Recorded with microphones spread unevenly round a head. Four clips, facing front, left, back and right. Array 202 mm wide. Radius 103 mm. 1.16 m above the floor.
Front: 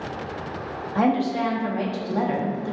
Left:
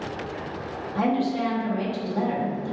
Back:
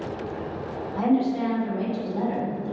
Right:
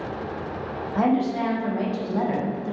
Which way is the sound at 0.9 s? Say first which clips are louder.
Right 2 dB, front 1 dB; 25° right.